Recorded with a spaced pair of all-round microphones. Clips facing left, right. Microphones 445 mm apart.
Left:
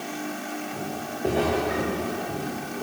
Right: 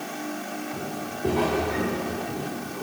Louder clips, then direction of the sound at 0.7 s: Even; 20° right (ahead or behind).